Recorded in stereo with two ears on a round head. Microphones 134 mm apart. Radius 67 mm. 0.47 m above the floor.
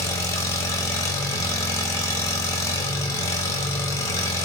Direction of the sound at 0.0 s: 20° left (ahead or behind).